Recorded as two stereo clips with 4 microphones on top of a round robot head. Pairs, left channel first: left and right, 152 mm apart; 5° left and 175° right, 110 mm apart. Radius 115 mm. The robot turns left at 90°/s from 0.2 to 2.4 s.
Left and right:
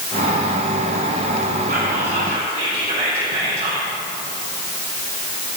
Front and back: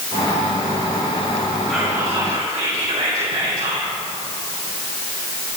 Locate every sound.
1.7 s whispering: 80° right, 4.5 m; by 3.9 s 145° right, 4.5 m